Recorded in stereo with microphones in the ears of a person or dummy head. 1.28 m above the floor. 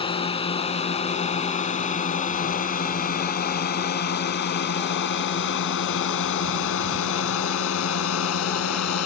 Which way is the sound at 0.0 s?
35° left (ahead or behind).